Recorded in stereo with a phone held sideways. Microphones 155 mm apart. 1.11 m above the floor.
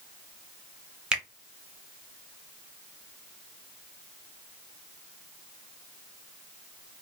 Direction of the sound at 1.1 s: 5° right (ahead or behind).